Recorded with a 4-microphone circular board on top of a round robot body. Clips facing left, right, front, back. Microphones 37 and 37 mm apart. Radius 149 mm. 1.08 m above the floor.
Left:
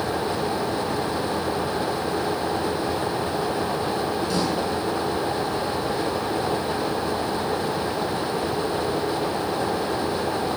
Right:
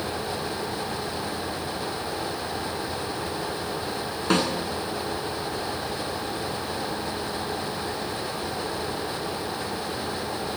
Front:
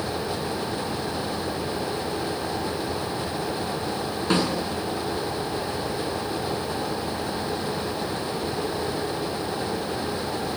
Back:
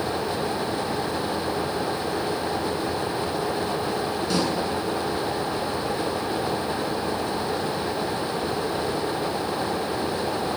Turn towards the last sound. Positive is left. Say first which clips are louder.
# right 5 dB, front 3 dB
turn(degrees=-55)